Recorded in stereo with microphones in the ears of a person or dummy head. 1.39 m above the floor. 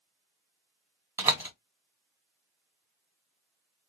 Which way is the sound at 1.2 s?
15° right (ahead or behind).